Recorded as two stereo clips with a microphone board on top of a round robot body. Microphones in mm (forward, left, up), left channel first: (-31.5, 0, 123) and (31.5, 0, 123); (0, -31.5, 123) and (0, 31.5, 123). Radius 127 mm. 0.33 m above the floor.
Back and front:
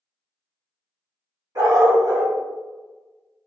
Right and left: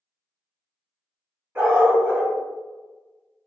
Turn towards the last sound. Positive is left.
turn(degrees=30)